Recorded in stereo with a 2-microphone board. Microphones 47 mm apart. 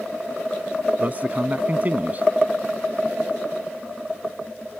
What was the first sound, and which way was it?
A man speaking, 40° right (ahead or behind).